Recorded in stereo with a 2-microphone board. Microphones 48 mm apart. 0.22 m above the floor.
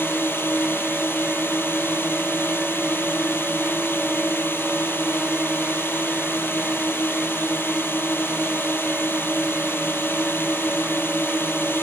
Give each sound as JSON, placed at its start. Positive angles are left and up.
{"t": 0.0, "sound": "a drone", "side_deg": 50}